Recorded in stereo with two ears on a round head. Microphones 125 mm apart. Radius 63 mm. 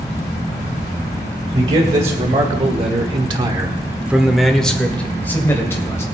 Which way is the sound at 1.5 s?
50° right (ahead or behind).